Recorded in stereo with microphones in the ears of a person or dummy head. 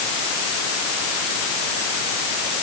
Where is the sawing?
I don't hear sawing.